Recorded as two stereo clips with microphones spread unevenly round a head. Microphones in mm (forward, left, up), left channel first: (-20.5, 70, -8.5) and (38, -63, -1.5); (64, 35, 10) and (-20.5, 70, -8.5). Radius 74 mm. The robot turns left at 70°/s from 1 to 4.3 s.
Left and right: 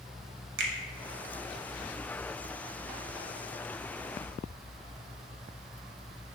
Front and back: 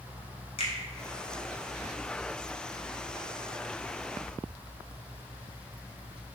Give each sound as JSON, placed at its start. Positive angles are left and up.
{"t": 0.6, "sound": "a finger snap", "azimuth_deg": -65, "distance_m": 0.6}